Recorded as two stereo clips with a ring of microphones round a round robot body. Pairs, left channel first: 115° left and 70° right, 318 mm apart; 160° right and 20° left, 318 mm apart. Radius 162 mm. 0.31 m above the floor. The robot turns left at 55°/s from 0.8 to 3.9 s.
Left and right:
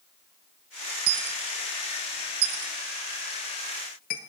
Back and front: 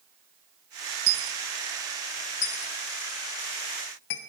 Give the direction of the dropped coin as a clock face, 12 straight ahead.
1 o'clock.